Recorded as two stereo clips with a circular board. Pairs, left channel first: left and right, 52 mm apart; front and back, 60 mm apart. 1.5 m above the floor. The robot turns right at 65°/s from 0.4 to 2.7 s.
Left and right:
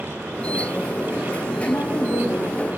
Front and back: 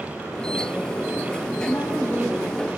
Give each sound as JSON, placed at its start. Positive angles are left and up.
{"t": 1.7, "sound": "a woman speaking", "azimuth_deg": 55, "distance_m": 0.5}